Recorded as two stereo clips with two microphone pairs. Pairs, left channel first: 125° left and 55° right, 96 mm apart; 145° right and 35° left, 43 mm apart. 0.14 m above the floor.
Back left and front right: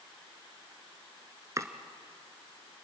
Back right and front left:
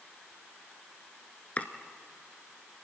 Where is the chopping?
100° right, 1.2 m.